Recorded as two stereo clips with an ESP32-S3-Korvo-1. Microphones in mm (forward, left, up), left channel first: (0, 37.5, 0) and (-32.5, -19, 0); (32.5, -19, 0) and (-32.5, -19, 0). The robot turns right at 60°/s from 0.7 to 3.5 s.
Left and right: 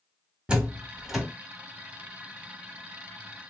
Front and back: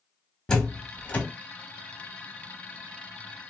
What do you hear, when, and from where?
0.5 s a door slam: 65° right, 0.7 m; by 1.2 s 35° right, 0.7 m